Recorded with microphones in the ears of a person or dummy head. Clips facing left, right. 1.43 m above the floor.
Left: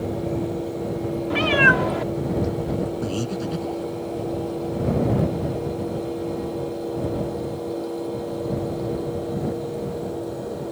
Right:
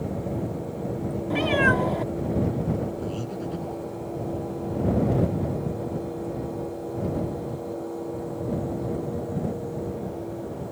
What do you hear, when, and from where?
1.3 s a cat meowing: 5° right (ahead or behind)
3.0 s breathing: 85° left